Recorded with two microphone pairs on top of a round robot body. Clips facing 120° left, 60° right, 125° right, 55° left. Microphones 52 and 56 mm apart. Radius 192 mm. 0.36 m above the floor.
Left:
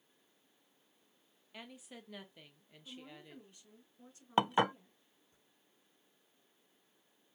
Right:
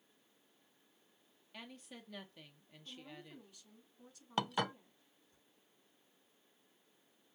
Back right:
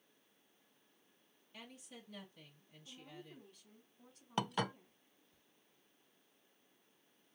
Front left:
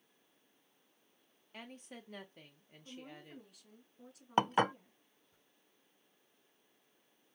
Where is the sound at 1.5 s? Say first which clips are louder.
Left 1 dB, front left 4 dB; 35° left, 1.1 m.